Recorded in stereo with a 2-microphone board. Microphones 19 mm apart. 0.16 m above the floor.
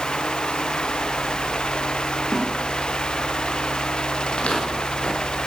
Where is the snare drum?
25° left (ahead or behind), 5 m.